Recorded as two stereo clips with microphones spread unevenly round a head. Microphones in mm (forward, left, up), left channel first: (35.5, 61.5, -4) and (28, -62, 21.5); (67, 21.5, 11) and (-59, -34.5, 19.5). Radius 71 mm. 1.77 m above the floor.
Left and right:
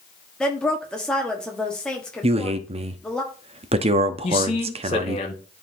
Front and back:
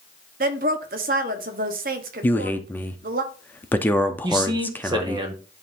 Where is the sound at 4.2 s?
145° left, 1.0 m.